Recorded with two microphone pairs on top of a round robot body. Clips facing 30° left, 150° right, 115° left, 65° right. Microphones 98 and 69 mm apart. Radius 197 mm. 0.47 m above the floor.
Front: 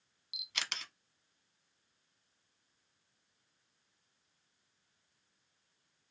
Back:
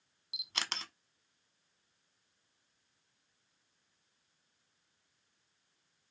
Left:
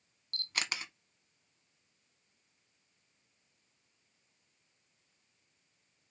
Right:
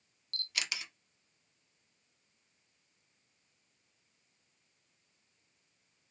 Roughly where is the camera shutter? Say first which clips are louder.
Back 3 dB, left 2 dB; behind.